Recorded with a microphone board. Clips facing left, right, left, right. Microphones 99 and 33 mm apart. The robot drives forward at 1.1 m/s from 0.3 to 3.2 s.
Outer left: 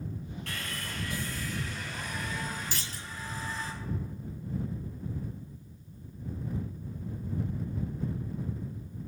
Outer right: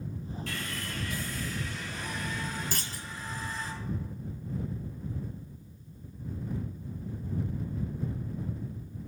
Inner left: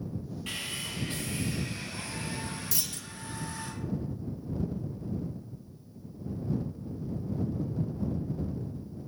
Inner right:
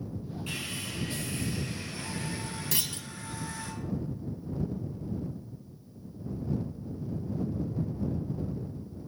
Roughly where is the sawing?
Left.